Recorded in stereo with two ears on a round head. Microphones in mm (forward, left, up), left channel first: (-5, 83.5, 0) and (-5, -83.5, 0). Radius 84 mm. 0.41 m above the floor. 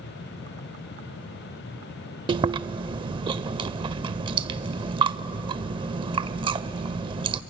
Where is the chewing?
25° right (ahead or behind), 0.5 m.